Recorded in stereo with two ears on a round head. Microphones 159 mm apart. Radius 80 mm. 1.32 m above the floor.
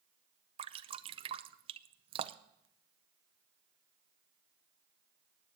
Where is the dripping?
30° right (ahead or behind), 0.5 m.